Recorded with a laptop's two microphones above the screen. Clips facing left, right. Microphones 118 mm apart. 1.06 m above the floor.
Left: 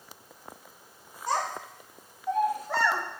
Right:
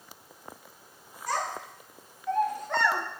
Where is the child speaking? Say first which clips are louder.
Left 2 dB; 30° left (ahead or behind), 2.5 m; by 3.0 s centre (ahead or behind), 1.7 m.